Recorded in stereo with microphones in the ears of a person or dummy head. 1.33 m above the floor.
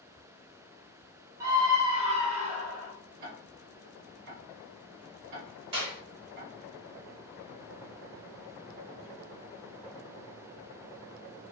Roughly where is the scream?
Centre.